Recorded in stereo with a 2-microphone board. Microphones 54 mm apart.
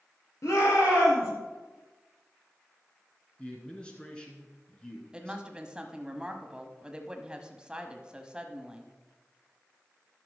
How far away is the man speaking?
About 2.5 m.